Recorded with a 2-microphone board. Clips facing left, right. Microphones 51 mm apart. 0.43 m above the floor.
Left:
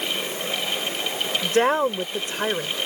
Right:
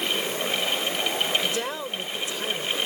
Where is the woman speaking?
50° left (ahead or behind).